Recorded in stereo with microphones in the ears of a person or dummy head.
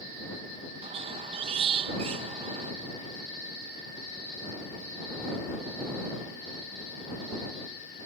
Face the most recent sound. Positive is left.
turn(degrees=-30)  # may be behind; listen again after turning